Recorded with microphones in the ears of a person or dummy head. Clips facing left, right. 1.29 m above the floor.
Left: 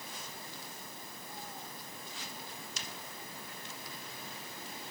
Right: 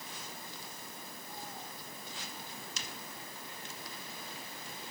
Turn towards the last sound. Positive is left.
No sound to turn to.